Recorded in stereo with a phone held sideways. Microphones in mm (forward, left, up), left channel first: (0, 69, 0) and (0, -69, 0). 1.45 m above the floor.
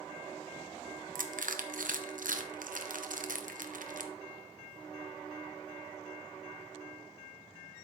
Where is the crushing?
75° right (ahead or behind), 0.8 m.